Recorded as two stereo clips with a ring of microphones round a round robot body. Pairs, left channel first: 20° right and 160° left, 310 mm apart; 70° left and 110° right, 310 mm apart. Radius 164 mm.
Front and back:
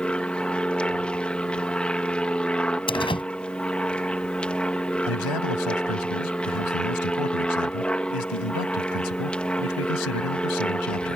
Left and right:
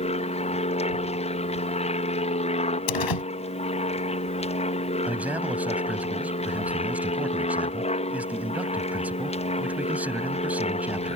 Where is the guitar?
No guitar in this recording.